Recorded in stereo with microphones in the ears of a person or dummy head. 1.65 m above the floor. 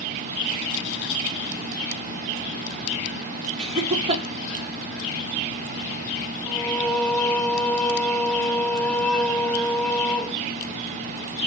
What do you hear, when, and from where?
3.6 s laughter: 35° right (ahead or behind), 3.5 m
6.5 s singing: 5° left (ahead or behind), 3 m